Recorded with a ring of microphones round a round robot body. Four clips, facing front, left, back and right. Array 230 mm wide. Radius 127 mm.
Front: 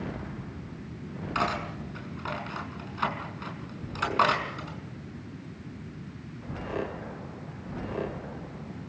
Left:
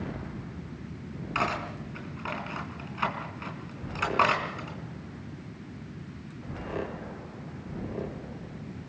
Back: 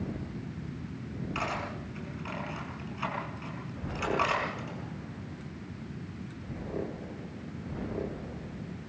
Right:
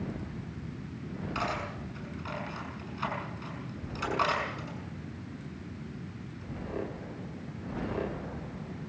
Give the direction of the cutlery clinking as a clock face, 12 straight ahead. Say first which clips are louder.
Left 5 dB, front 6 dB; 10 o'clock.